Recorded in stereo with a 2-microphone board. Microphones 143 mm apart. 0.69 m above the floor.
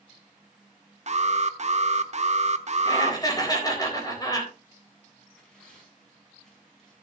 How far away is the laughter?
About 4 m.